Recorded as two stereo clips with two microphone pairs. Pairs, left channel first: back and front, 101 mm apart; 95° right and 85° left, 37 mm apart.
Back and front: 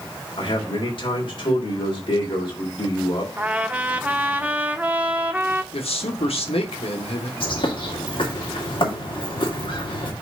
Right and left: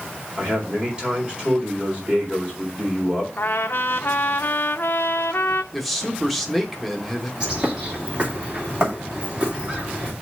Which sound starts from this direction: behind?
A man speaking, at 5.7 s.